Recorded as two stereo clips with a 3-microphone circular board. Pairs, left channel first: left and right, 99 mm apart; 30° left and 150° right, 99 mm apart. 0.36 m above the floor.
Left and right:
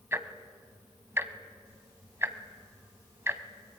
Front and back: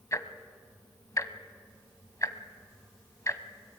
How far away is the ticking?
About 1.3 m.